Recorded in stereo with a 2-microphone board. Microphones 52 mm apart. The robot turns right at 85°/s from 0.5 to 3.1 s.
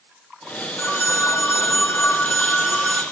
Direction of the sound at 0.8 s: 40° left.